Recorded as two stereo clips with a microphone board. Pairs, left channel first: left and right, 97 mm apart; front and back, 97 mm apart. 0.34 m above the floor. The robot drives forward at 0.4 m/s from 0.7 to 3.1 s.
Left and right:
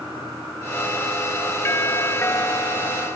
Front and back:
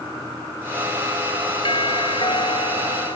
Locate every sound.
1.6 s a doorbell: 25° left